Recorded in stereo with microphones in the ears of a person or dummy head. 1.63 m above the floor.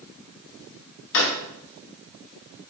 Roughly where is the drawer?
Left.